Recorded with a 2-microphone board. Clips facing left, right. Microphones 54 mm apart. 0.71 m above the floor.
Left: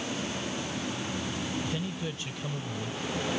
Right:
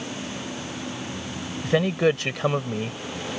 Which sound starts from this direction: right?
A man speaking, at 1.6 s.